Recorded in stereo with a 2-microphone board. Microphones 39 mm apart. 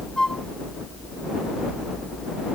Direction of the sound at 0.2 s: 15° left (ahead or behind).